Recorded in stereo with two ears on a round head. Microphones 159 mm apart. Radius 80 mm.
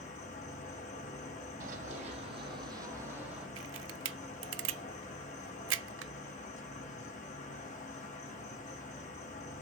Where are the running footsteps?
45° right (ahead or behind), 2.5 m; by 3.5 s 5° right (ahead or behind), 2.5 m.